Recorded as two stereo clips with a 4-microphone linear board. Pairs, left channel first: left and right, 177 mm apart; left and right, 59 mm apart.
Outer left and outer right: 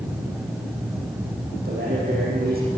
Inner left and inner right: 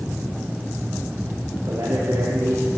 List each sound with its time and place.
1.6 s a man speaking: 60° right (ahead or behind), 9.5 m